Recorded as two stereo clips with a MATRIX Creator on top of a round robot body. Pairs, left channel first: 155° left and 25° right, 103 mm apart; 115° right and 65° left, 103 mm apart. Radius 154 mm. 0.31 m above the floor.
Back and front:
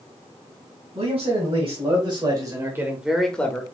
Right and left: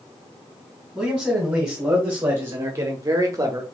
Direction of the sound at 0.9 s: 15° right.